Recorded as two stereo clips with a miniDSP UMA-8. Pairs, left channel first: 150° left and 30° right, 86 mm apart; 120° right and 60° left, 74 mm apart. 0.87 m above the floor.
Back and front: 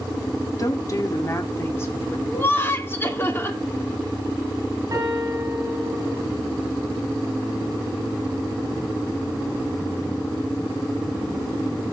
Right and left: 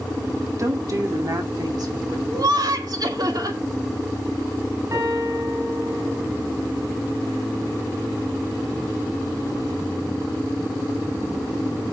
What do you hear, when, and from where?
0.6 s a woman speaking: 105° left, 1.5 m; by 2.2 s 90° left, 2.5 m
2.3 s laughter: 90° left, 2.5 m
4.9 s a piano: 20° left, 8 m